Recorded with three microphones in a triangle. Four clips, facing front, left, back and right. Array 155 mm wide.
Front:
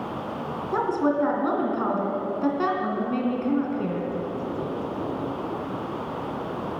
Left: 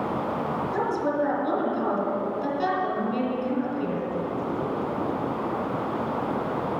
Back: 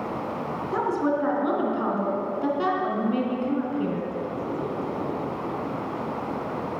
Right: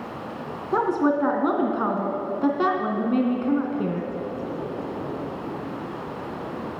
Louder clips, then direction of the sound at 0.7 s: Right 7 dB, front 2 dB; 85° right.